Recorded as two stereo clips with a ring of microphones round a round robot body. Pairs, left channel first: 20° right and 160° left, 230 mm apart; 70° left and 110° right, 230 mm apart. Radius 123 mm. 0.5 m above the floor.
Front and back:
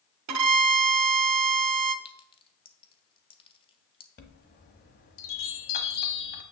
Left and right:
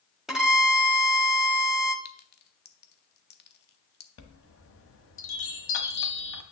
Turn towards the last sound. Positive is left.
turn(degrees=30)